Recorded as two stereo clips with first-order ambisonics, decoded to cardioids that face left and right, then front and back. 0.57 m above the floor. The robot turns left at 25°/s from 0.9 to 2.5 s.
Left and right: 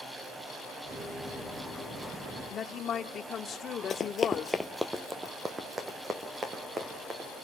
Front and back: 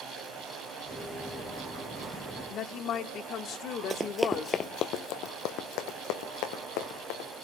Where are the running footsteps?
140° left, 0.6 m; by 7.4 s 20° right, 3 m.